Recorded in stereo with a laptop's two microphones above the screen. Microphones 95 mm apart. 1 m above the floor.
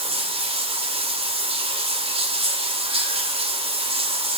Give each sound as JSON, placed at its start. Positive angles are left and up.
{"t": 0.0, "sound": "running water", "side_deg": -85, "distance_m": 2.0}